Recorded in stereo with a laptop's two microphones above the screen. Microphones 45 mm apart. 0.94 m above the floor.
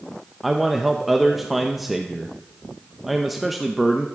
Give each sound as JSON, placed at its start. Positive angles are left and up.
{"t": 0.4, "sound": "a man speaking", "side_deg": 0, "distance_m": 0.6}